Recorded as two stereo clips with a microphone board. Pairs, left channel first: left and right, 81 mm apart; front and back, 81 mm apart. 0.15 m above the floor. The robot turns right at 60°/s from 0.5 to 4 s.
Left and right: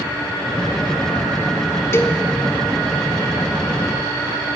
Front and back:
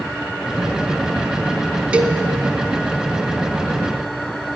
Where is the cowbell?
110° left, 0.7 m; by 2.2 s 130° left, 0.7 m.